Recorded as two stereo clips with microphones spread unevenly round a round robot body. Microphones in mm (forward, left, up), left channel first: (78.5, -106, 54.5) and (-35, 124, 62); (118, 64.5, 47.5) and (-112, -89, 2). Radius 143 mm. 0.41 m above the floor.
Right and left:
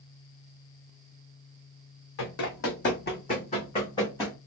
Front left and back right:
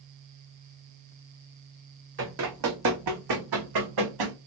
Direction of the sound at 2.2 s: 95° right.